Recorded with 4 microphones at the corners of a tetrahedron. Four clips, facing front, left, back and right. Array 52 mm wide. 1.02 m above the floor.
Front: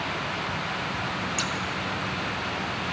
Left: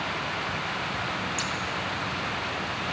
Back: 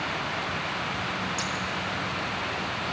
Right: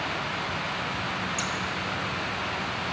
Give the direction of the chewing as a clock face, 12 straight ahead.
No chewing in this recording.